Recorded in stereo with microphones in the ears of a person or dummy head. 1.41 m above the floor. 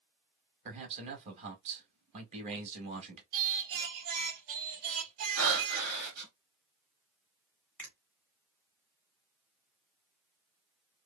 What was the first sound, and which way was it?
A man speaking, 35° right (ahead or behind).